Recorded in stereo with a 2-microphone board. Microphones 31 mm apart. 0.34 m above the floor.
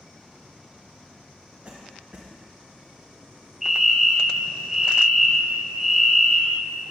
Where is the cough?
35° right (ahead or behind), 1.4 m.